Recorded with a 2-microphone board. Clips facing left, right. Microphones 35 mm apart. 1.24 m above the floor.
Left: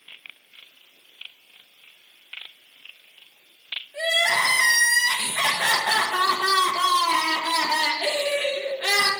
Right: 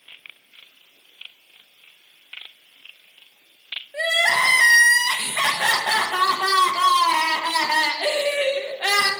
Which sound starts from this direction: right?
Crying, at 3.9 s.